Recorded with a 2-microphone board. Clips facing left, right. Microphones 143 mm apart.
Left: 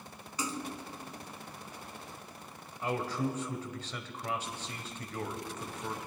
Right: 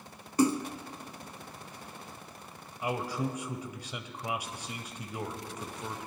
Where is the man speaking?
15° right (ahead or behind), 1.1 m.